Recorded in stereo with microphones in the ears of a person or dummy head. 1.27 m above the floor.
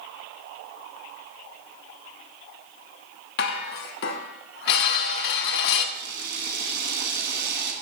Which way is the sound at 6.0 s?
50° right (ahead or behind).